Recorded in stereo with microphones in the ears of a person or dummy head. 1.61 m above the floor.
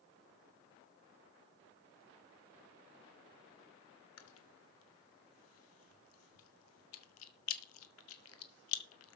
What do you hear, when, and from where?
4.2 s chewing: 85° left, 1.4 m